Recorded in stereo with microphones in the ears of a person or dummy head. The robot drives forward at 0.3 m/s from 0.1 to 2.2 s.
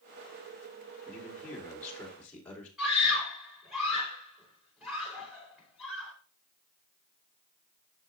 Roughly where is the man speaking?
Centre.